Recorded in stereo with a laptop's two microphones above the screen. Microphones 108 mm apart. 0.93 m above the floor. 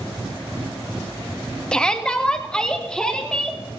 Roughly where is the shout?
Centre.